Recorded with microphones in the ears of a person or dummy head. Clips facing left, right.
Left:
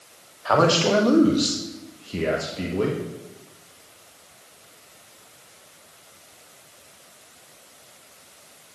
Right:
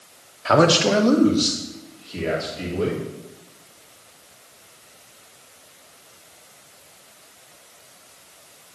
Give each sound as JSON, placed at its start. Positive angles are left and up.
{"t": 0.5, "sound": "a man speaking", "side_deg": -30, "distance_m": 1.0}